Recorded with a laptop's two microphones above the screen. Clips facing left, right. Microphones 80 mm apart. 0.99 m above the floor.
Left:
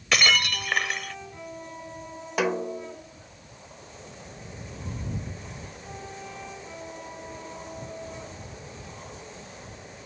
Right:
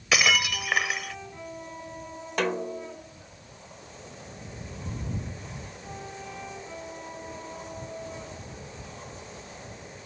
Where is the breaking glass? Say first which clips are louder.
Even; 5° right (ahead or behind).